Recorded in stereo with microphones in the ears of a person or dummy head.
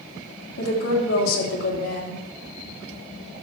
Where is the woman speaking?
85° left, 3 m.